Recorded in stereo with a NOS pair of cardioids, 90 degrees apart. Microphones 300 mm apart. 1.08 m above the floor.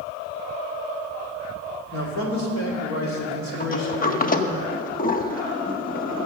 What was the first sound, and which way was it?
A man speaking, 65° left.